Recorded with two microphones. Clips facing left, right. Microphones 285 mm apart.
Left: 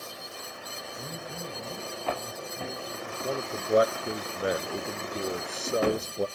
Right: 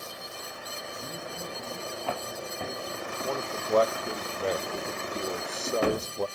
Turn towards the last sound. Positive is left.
turn(degrees=15)  # may be behind; listen again after turning